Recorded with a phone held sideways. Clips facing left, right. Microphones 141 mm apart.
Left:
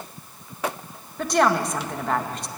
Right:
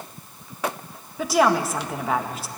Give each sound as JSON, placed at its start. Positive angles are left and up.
{"t": 1.2, "sound": "a woman speaking", "side_deg": -5, "distance_m": 1.7}